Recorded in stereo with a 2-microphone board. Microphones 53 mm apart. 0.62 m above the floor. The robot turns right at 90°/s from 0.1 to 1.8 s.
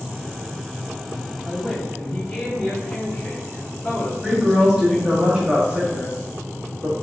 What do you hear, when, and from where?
1.4 s a man speaking: straight ahead, 1.7 m; by 5.1 s 35° left, 1.7 m
4.2 s a woman speaking: 20° right (ahead or behind), 1.1 m